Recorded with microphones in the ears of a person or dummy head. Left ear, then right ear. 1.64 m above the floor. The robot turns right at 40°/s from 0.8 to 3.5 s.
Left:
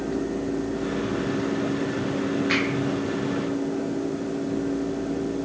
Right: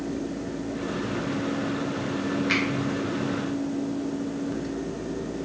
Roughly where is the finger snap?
Centre.